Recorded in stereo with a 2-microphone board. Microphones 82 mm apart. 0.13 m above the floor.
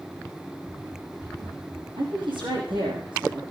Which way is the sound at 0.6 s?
55° right (ahead or behind).